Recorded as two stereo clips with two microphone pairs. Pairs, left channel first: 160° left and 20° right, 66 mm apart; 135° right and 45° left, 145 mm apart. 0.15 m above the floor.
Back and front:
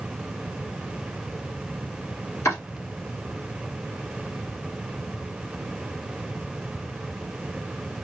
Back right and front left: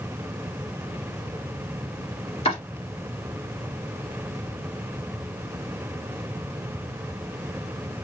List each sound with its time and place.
2.5 s chopping: 175° right, 2.5 m